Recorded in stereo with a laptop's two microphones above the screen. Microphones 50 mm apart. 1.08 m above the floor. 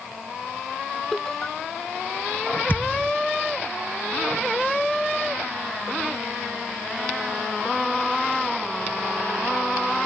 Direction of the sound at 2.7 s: 40° left (ahead or behind).